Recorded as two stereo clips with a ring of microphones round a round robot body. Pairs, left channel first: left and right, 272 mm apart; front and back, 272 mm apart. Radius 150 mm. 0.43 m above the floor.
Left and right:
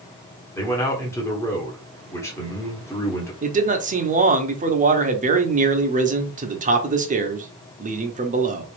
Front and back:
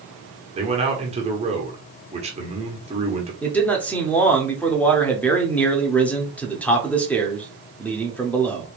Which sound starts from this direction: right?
A man speaking, at 3.4 s.